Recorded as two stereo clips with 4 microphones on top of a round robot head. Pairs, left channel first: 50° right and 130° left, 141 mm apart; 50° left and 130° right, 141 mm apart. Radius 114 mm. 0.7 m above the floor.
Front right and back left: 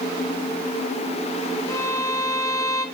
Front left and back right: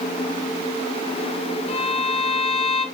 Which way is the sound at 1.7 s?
15° left.